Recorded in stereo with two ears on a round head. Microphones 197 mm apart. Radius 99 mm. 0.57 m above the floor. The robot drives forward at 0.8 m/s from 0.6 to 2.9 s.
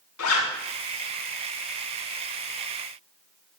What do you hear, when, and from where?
0.2 s a zipper: 80° left, 5.5 m